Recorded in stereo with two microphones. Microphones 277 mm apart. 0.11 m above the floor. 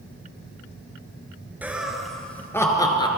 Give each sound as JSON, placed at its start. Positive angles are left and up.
{"t": 1.6, "sound": "laughter", "side_deg": -5, "distance_m": 2.0}